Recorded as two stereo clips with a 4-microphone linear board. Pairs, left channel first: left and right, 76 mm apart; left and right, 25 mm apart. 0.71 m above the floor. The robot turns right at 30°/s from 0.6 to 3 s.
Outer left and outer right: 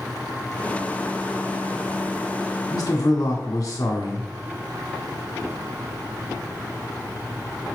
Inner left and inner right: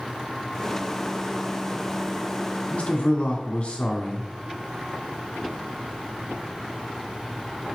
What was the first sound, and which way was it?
A man speaking, 60° left (ahead or behind).